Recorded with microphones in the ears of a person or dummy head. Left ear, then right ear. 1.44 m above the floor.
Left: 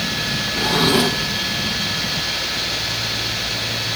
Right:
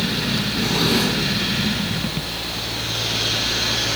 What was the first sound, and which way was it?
A drawer, 30° left (ahead or behind).